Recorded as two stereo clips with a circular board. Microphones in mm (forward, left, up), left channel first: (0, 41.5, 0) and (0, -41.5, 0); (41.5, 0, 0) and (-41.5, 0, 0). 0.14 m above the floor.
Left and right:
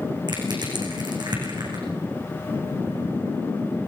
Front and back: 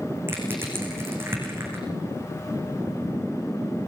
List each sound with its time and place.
0.3 s crushing: 120° right, 7.5 m